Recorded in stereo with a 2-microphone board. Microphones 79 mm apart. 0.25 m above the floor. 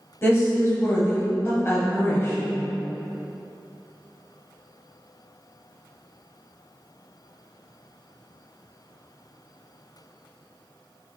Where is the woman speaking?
30° left (ahead or behind), 1.1 m.